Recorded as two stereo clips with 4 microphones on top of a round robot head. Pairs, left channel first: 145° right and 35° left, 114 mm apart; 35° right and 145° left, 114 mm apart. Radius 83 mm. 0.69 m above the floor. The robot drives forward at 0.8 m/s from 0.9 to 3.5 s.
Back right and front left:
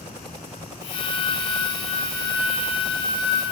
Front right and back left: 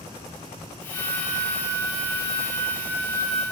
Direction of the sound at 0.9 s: 150° left.